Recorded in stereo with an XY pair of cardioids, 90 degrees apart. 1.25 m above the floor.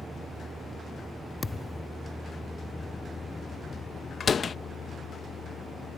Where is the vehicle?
25° right; by 6.0 s 65° left.